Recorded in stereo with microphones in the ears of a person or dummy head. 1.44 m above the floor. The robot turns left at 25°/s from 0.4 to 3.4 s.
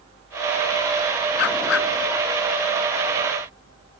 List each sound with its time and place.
1.4 s a dog barking: 70° left (ahead or behind); by 1.9 s 80° left